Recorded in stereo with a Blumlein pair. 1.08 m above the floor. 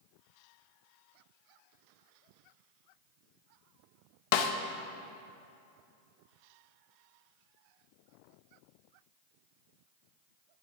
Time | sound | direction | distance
4.3 | a snare drum | 45° left | 0.8 m